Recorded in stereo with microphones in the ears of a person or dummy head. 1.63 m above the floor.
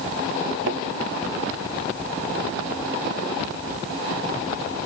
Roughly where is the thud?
Right.